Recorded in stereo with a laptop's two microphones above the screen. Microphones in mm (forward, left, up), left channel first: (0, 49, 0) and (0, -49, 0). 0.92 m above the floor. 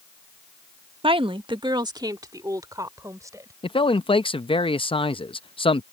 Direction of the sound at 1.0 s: 65° right (ahead or behind).